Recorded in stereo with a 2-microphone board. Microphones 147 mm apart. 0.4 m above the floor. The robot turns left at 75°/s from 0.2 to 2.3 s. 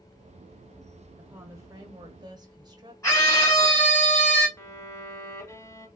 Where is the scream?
25° left (ahead or behind), 1.8 m.